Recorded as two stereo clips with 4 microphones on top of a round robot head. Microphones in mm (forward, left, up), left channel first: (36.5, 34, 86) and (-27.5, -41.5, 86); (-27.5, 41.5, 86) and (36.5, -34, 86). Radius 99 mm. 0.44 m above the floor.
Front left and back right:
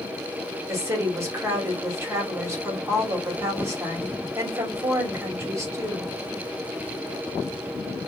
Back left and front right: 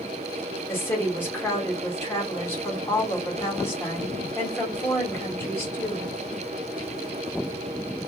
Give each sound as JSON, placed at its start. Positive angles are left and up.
{"t": 0.7, "sound": "a woman speaking", "azimuth_deg": -175, "distance_m": 1.8}